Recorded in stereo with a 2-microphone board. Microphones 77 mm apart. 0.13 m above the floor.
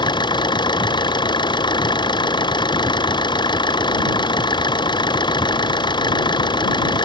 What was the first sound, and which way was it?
An engine running, 85° left.